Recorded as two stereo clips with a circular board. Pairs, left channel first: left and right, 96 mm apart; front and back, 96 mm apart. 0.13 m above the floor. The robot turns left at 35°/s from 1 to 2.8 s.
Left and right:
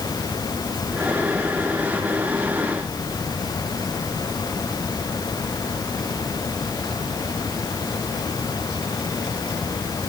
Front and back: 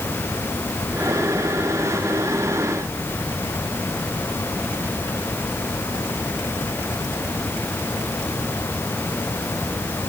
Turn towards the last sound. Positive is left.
No sound to turn to.